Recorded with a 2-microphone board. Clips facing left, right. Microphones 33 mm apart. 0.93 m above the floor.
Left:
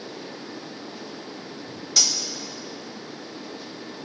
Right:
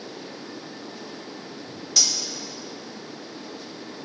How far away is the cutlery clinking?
About 1.7 m.